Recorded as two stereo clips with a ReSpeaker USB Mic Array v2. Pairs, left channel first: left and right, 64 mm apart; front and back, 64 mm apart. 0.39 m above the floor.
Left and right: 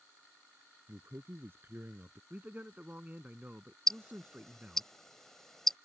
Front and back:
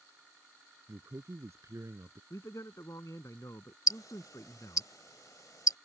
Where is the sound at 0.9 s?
140° right; by 2.2 s 145° right.